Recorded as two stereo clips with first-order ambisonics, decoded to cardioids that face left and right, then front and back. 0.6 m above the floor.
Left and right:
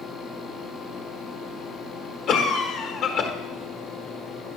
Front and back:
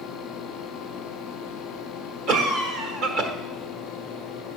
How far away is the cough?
About 1.3 m.